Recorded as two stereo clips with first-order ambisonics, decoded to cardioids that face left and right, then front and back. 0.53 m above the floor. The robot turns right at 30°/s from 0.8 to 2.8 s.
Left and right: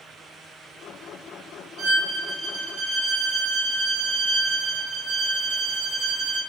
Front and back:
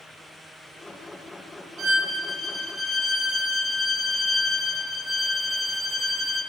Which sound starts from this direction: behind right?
A violin, at 1.8 s.